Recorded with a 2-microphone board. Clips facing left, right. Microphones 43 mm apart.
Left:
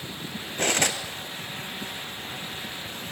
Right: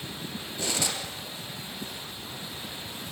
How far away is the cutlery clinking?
About 1.5 m.